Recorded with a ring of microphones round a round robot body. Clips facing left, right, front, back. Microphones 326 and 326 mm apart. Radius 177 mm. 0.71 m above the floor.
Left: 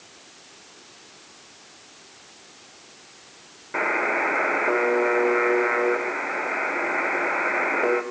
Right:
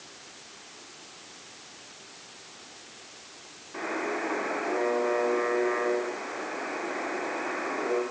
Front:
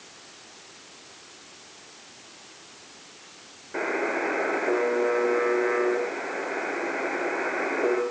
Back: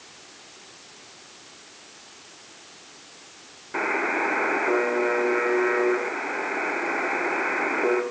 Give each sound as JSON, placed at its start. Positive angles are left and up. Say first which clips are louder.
{"t": 3.7, "sound": "a buzzer", "louder": "left 4 dB, even", "azimuth_deg": 105, "distance_m": 4.0}